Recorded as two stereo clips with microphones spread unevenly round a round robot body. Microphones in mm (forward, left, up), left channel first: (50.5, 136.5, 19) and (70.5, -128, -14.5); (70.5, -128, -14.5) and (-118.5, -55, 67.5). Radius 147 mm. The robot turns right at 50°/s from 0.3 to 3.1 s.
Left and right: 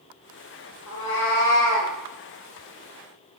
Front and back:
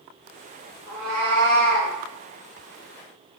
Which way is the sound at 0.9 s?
75° left.